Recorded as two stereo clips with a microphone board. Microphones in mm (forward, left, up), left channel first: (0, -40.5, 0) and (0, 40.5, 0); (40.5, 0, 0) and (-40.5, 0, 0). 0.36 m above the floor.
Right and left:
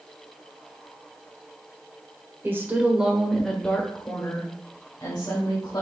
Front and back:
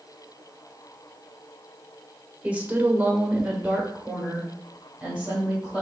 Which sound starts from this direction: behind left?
A woman speaking, at 2.4 s.